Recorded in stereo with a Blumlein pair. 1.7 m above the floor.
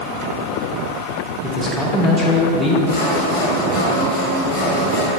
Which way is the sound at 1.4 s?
5° left.